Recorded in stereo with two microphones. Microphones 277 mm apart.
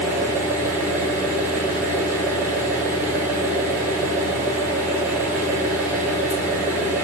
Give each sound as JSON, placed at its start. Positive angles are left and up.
{"t": 0.0, "sound": "an engine running", "side_deg": -10, "distance_m": 1.4}